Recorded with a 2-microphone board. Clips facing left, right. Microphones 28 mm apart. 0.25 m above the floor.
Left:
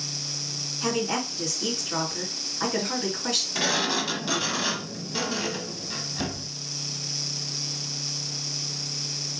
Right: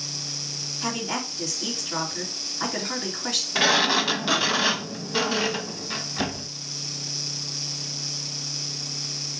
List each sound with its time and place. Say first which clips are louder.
0.8 s a woman speaking: left 3 dB; 5° right (ahead or behind), 3 m
3.5 s a sliding door: right 8 dB; 30° right (ahead or behind), 0.7 m